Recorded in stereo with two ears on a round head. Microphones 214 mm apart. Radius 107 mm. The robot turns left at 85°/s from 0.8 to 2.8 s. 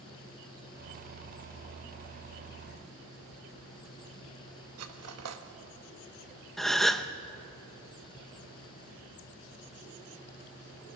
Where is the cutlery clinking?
75° right (ahead or behind), 1.3 m.